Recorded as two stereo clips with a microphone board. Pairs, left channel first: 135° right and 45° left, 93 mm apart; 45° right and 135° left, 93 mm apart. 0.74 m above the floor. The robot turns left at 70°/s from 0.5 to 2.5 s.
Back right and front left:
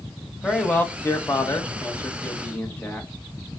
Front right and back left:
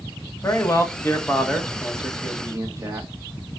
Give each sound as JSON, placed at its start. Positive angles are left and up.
{"t": 0.4, "sound": "a man speaking", "azimuth_deg": -60, "distance_m": 1.0}